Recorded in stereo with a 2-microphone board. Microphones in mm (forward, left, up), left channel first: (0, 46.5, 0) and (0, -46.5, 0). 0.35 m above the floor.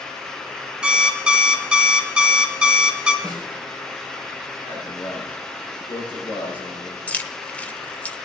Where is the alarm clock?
10° right (ahead or behind), 1.9 m.